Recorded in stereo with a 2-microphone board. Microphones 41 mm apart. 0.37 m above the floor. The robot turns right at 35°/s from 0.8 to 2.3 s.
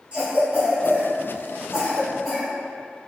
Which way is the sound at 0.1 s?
30° right (ahead or behind).